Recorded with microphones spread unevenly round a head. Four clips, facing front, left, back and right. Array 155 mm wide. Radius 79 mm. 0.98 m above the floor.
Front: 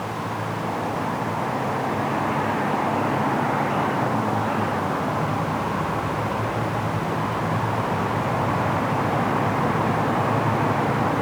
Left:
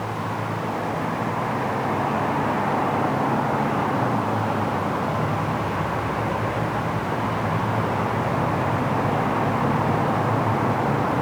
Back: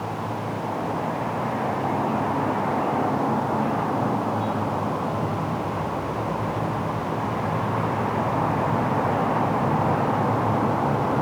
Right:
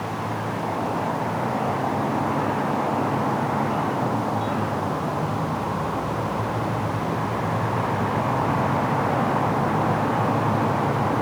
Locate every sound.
Only background noise.